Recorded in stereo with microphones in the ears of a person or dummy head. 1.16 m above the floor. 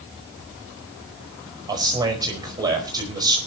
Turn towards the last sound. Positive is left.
turn(degrees=-20)  # may be behind; listen again after turning